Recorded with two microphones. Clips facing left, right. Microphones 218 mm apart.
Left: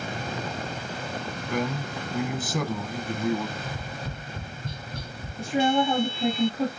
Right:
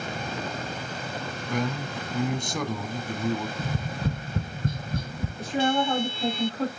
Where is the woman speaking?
15° left (ahead or behind), 4 m.